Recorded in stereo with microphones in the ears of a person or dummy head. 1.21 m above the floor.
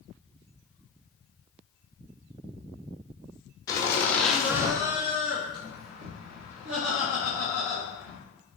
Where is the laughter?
20° left (ahead or behind), 1.0 m; by 8.2 s 80° right, 2.5 m.